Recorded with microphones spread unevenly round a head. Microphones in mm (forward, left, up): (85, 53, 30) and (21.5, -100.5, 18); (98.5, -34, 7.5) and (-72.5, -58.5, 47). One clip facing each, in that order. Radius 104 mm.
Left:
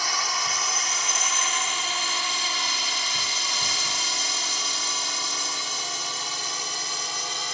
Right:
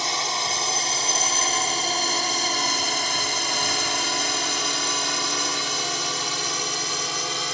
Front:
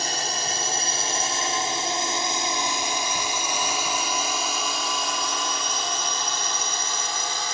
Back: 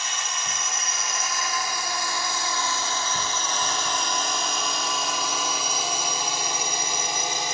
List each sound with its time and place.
0.0 s a drone: 45° right; by 7.5 s 100° right